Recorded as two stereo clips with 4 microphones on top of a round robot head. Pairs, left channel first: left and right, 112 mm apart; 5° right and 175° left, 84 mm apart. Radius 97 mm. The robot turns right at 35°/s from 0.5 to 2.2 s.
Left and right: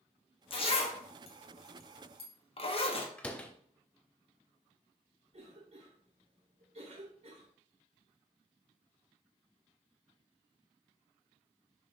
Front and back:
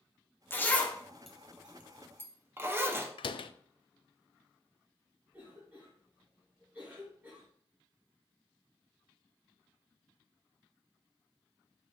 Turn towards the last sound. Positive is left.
turn(degrees=-110)